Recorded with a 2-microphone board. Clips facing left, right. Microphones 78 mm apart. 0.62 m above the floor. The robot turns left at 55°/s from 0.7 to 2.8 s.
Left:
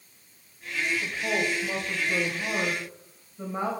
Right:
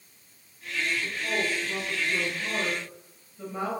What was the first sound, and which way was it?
A woman speaking, 125° left.